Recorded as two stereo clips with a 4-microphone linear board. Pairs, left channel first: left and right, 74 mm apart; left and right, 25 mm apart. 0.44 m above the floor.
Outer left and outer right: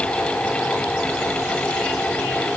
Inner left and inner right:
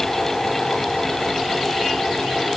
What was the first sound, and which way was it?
Only background noise.